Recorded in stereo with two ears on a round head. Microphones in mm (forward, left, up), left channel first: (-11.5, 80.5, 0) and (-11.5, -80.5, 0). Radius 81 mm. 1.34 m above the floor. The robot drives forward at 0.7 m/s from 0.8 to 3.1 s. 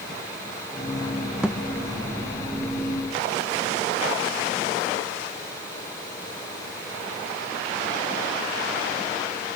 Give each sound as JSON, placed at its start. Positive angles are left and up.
{"t": 1.4, "sound": "a thud", "side_deg": -5, "distance_m": 1.0}